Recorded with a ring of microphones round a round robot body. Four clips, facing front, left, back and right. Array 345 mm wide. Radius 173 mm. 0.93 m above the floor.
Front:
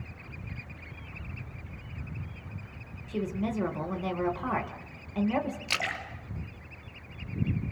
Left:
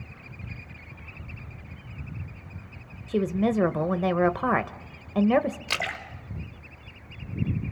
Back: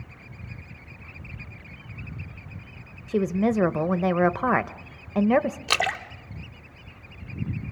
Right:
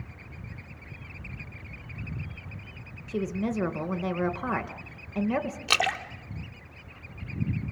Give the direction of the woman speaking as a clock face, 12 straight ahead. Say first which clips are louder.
Left 5 dB, back 9 dB; 7 o'clock.